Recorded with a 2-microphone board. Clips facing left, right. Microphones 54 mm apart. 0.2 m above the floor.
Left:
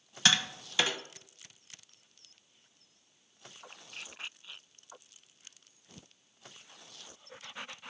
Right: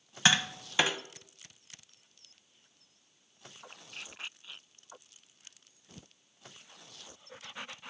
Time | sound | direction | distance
0.2 | tapping | 20° right (ahead or behind) | 1.0 m